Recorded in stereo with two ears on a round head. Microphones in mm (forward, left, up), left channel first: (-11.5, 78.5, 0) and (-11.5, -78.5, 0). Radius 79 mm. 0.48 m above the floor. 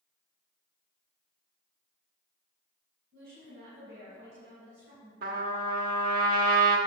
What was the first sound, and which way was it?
A woman speaking, 65° right (ahead or behind).